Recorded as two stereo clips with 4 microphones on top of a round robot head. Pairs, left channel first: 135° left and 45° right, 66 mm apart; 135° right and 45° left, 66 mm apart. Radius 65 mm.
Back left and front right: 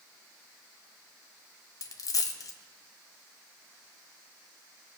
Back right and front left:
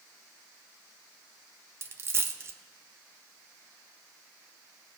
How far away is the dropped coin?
About 0.6 m.